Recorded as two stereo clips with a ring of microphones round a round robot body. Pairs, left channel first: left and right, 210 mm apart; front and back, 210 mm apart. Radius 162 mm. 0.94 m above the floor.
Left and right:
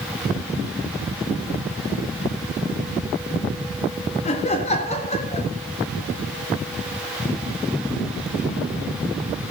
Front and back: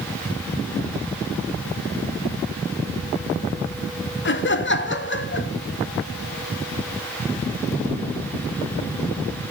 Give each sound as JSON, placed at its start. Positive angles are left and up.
{"t": 4.2, "sound": "laughter", "azimuth_deg": 25, "distance_m": 1.8}